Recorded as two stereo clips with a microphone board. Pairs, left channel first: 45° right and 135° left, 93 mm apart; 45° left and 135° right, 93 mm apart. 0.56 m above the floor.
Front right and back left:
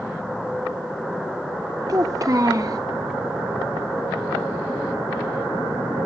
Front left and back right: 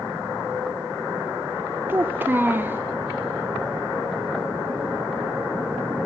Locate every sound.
1.9 s a child speaking: 165° left, 0.5 m